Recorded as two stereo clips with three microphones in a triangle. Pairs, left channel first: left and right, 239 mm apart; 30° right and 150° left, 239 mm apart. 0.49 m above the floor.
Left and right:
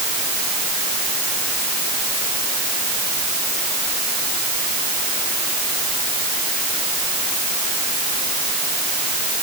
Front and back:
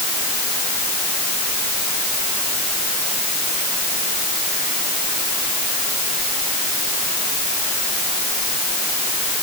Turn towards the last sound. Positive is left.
No sound to turn to.